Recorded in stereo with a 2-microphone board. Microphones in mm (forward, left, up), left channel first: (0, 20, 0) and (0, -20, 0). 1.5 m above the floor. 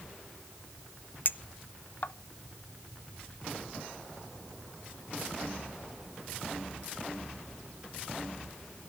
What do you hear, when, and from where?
1.2 s a clink: 55° left (ahead or behind), 0.5 m